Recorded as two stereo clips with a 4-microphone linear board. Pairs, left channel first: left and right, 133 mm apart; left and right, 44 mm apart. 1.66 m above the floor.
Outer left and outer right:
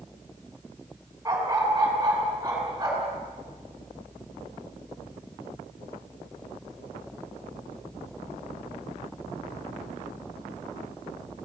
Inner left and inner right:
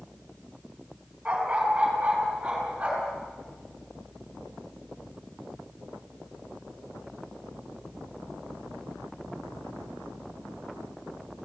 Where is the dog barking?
25° right (ahead or behind), 5.5 m.